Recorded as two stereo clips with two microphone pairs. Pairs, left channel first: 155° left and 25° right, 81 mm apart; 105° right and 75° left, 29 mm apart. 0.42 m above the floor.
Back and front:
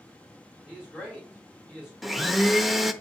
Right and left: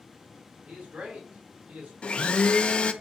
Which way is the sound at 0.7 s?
65° left.